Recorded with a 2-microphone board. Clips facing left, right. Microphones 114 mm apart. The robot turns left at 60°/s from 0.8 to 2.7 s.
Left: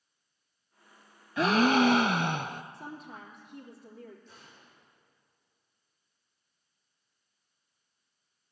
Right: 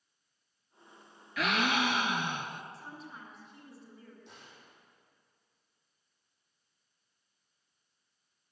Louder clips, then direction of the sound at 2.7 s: Left 4 dB; 55° left (ahead or behind).